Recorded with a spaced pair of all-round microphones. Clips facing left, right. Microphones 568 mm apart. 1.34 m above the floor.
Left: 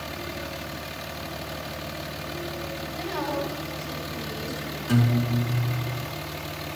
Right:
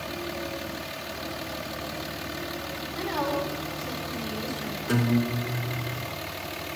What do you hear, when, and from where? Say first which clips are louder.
3.0 s a woman speaking: right 1 dB; 80° right, 8.5 m
4.9 s a guitar: even; 20° left (ahead or behind), 3.5 m